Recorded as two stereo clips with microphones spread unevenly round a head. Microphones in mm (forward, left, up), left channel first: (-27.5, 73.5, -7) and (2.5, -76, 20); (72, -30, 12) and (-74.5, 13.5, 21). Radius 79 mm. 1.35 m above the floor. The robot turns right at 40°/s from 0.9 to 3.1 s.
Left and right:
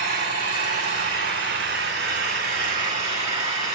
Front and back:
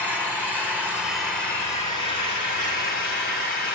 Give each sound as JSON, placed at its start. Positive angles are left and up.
{"t": 0.0, "sound": "an engine running", "azimuth_deg": -115, "distance_m": 9.5}